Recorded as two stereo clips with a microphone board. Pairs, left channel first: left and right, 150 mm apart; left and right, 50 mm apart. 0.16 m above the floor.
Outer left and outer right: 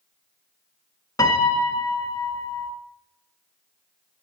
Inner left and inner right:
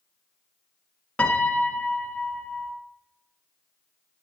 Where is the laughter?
No laughter in this recording.